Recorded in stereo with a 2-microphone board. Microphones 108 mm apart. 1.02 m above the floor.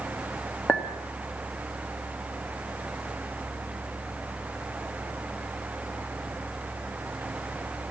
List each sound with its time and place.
0.7 s a clink: 15° left (ahead or behind), 1.3 m